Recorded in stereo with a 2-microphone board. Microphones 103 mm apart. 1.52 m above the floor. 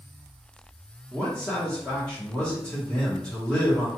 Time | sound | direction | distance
1.1 | a man speaking | 10° left (ahead or behind) | 1.0 m